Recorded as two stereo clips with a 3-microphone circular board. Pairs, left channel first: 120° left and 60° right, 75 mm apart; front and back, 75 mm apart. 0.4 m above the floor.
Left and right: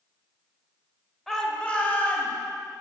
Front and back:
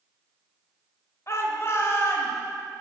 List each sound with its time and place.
1.3 s a shout: 35° left, 1.5 m; by 2.3 s 55° left, 2.5 m